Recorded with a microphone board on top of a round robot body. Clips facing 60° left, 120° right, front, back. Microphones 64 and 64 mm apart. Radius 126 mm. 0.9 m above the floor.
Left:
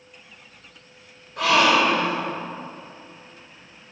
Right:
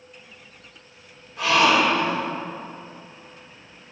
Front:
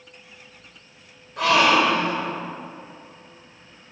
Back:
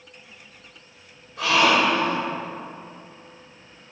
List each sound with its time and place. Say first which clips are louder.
1.4 s a gasp: even, front 2 dB; 30° left, 2 m